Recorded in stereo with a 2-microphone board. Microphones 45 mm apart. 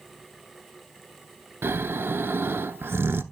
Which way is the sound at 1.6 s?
60° right (ahead or behind).